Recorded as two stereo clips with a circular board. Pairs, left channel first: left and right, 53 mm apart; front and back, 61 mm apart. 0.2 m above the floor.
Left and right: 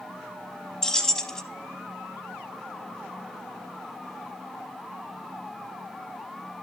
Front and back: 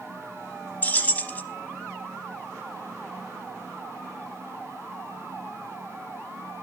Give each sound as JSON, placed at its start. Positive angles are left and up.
{"t": 0.8, "sound": "keys jangling", "azimuth_deg": 25, "distance_m": 0.8}